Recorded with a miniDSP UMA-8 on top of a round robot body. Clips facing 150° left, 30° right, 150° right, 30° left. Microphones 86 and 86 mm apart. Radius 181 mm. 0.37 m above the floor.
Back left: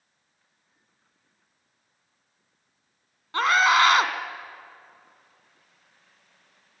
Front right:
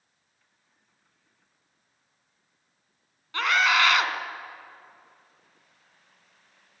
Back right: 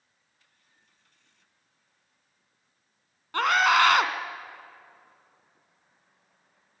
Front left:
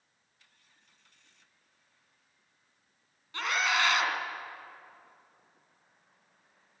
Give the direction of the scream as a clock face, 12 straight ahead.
6 o'clock.